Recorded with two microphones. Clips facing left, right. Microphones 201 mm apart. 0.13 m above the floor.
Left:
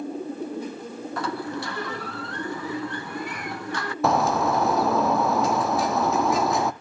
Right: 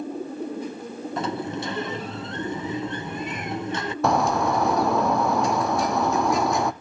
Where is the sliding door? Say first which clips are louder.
Right 2 dB; 25° right (ahead or behind), 0.5 m.